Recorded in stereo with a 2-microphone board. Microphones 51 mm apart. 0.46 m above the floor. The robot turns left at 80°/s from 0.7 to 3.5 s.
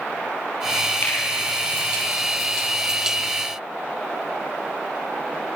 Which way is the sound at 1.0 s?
55° left (ahead or behind).